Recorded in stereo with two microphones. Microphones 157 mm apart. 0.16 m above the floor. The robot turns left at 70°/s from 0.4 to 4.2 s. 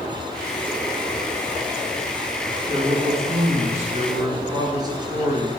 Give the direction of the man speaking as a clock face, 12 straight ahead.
1 o'clock.